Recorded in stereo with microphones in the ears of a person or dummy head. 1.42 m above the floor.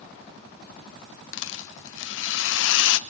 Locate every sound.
1.3 s a rattle: 75° left (ahead or behind), 1.2 m